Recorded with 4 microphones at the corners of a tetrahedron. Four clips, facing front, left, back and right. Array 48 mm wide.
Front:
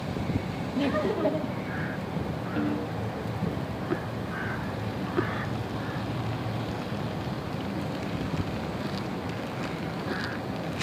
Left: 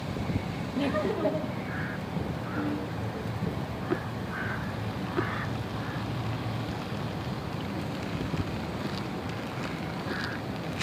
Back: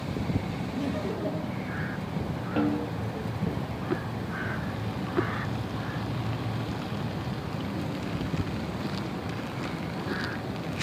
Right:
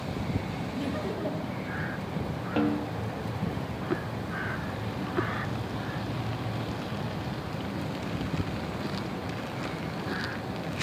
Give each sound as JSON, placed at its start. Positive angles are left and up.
{"t": 0.8, "sound": "laughter", "azimuth_deg": 30, "distance_m": 1.8}
{"t": 2.6, "sound": "a snare drum", "azimuth_deg": -110, "distance_m": 7.5}